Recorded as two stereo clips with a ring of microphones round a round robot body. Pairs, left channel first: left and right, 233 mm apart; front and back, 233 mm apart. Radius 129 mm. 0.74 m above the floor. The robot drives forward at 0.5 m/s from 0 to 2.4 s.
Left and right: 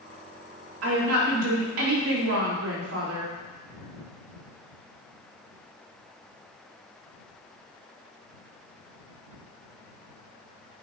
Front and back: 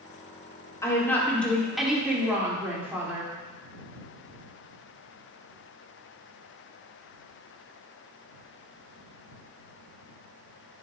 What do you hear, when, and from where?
0.8 s a woman speaking: 75° right, 2 m; by 3.3 s 100° right, 2 m